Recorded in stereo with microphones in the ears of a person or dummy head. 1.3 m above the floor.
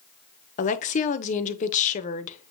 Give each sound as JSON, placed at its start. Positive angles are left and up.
{"t": 0.6, "sound": "a woman speaking", "side_deg": 45, "distance_m": 1.1}